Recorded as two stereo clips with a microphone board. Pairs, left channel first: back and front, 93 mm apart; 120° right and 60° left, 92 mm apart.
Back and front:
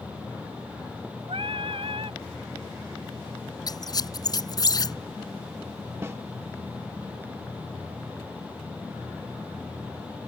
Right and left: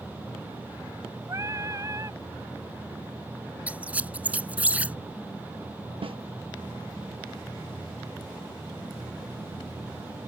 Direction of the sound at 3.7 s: 135° left.